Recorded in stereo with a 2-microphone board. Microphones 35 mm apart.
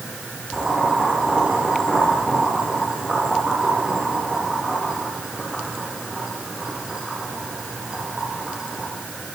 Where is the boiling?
20° right (ahead or behind), 9 m.